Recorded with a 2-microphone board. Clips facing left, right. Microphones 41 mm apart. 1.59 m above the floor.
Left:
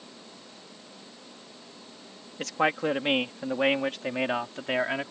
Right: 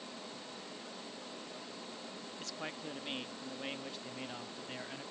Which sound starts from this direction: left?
A man speaking, at 2.4 s.